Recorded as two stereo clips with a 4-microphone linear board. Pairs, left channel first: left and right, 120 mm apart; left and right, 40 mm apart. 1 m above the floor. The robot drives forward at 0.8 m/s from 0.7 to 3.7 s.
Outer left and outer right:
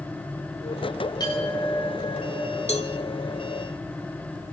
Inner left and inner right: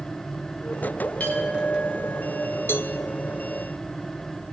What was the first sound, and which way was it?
A clink, 40° left (ahead or behind).